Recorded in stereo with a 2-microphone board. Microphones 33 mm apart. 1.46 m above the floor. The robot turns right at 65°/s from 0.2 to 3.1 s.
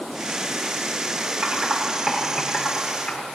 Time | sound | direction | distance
1.4 | typing on a keyboard | 70° right (ahead or behind) | 5 m